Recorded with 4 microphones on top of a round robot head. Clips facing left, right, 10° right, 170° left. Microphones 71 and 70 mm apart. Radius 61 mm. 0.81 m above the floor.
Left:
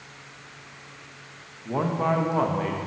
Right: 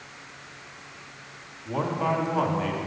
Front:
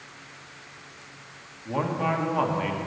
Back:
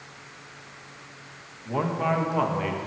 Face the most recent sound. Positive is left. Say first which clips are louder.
# left 2 dB, back 1 dB
turn(degrees=85)